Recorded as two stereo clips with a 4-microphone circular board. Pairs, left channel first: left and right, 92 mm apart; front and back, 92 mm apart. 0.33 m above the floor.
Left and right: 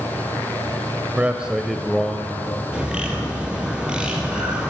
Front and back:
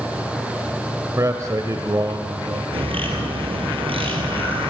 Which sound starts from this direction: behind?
A bird, at 2.7 s.